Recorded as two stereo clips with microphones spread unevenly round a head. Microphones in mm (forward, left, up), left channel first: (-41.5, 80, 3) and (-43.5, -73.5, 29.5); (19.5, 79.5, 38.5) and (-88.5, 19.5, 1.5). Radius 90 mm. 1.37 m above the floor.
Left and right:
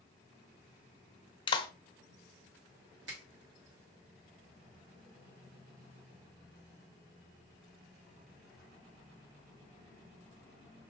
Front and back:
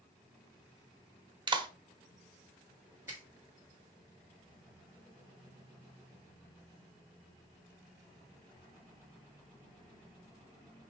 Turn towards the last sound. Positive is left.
turn(degrees=-70)